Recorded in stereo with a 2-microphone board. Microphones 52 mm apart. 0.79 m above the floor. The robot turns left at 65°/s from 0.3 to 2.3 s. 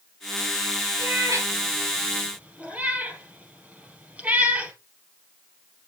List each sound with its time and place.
1.0 s a cat meowing: 65° right (ahead or behind), 3.5 m; by 4.7 s 30° right (ahead or behind), 3.5 m